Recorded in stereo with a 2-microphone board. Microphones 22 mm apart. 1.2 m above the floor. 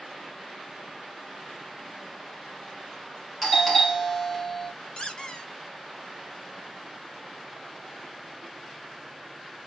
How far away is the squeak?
About 0.8 m.